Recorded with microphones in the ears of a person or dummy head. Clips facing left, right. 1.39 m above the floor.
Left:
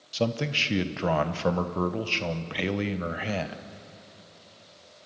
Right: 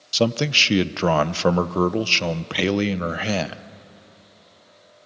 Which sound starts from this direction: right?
A man speaking, at 0.1 s.